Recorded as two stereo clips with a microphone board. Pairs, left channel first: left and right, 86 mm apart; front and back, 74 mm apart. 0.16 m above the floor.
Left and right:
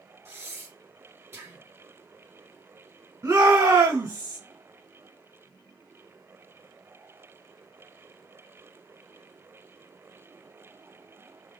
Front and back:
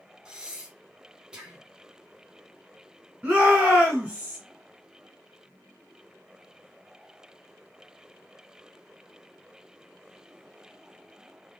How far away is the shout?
About 1.6 m.